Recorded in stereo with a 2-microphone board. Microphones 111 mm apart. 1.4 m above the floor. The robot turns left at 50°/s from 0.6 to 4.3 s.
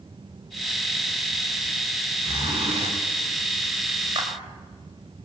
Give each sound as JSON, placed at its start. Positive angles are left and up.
{"t": 2.2, "sound": "a zipper", "azimuth_deg": -45, "distance_m": 5.5}
{"t": 4.2, "sound": "a clap", "side_deg": -45, "distance_m": 4.5}